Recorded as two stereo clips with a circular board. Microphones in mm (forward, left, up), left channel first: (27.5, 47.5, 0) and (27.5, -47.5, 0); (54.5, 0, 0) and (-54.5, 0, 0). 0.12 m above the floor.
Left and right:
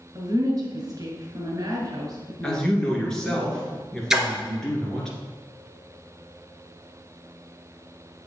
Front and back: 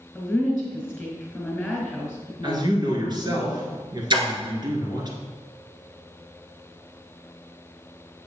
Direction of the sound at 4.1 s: 175° right.